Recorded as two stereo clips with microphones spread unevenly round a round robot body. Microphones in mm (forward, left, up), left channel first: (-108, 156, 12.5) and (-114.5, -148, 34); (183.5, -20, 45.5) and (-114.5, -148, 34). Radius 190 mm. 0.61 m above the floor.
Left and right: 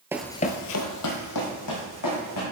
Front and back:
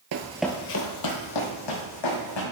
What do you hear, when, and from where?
0.1 s running footsteps: 165° right, 0.7 m; by 2.4 s 40° left, 3 m